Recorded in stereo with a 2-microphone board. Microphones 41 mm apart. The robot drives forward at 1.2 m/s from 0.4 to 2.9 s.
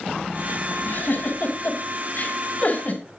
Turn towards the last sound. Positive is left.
turn(degrees=45)  # may be behind; listen again after turning